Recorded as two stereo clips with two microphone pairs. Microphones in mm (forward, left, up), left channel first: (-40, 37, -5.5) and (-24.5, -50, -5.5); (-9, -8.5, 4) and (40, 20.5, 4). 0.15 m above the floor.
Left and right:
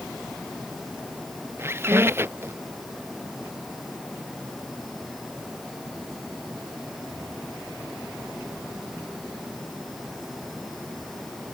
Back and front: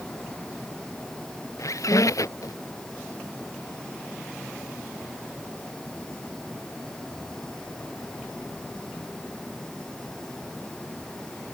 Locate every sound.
1.6 s a squeak: 140° right